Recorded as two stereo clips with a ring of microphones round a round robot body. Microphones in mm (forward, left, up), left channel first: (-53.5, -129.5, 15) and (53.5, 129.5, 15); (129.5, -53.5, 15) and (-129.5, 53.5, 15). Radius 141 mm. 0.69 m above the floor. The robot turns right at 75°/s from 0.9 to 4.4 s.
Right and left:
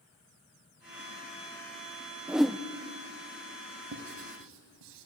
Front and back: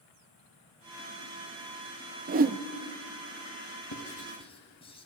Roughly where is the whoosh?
Behind left.